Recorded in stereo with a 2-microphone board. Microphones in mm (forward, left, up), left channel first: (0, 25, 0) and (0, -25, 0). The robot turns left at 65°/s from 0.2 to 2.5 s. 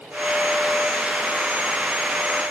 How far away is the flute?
No flute in this recording.